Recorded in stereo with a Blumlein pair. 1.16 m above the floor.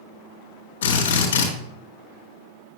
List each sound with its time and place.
0.8 s a drill: 60° left, 3.5 m